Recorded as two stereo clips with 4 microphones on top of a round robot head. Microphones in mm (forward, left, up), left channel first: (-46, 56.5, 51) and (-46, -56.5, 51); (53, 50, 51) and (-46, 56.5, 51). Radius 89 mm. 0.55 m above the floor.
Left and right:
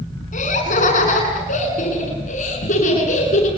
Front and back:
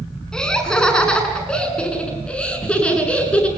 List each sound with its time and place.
0.3 s laughter: 80° left, 8 m; by 3.5 s 75° left, 9.5 m